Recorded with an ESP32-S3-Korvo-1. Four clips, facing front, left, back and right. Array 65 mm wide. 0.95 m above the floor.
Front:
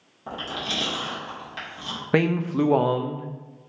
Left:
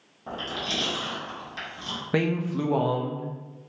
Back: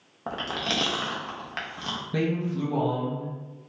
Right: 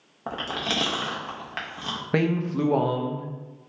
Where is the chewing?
130° right, 0.9 m.